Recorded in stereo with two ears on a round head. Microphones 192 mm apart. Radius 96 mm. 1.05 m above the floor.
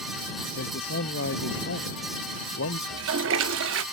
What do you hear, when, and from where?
0.6 s a man speaking: 50° left (ahead or behind); by 2.8 s 60° left (ahead or behind)
2.9 s a toilet flushing: 65° right (ahead or behind)